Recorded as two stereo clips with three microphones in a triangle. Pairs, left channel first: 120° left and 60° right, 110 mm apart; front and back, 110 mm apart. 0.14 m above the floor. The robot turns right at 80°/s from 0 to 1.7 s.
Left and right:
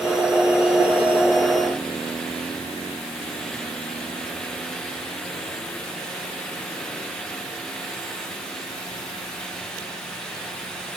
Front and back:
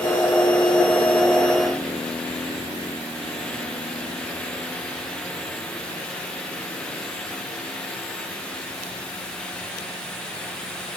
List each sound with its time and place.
Only background noise.